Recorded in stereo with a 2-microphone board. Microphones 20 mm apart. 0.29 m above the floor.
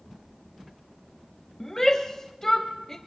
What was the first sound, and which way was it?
A shout, 20° left (ahead or behind).